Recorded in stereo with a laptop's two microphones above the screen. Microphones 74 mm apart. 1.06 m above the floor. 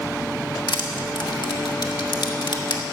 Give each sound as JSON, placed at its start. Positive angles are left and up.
{"t": 0.7, "sound": "crushing", "side_deg": 85, "distance_m": 1.3}